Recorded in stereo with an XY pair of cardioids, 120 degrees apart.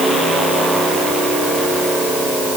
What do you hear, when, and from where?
Only background noise.